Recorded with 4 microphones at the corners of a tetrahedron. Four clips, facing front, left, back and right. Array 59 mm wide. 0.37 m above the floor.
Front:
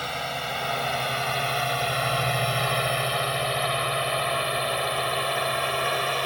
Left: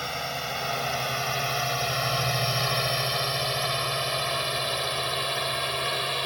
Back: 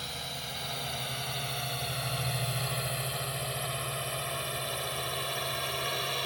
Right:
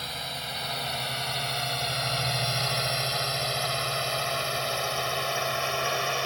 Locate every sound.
0.0 s a drone: 25° left; by 6.3 s 20° right